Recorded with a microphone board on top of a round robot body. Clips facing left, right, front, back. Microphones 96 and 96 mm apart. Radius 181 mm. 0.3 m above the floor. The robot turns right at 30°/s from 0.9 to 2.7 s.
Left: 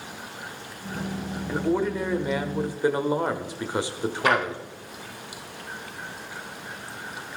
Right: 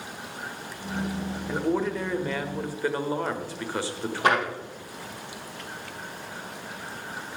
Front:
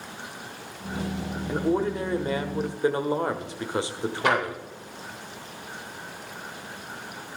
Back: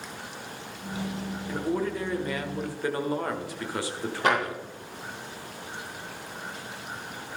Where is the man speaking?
5° left, 1.3 m; by 4.6 s 40° left, 1.3 m.